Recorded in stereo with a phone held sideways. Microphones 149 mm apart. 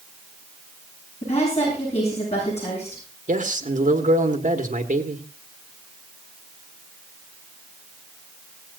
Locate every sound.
1.2 s a woman speaking: 50° left (ahead or behind), 8.5 m
3.3 s a man speaking: 60° right (ahead or behind), 1.5 m